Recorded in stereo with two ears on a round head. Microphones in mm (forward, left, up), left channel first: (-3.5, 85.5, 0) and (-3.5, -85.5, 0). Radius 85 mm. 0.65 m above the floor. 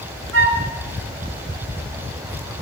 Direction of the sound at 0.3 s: 75° right (ahead or behind).